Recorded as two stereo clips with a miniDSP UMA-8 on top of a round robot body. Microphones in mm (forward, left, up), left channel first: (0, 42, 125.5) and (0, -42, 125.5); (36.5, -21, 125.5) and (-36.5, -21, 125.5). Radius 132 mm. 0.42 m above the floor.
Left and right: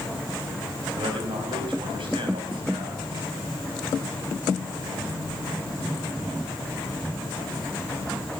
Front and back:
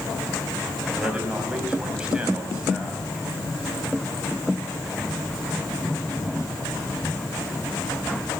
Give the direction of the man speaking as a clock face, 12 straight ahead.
3 o'clock.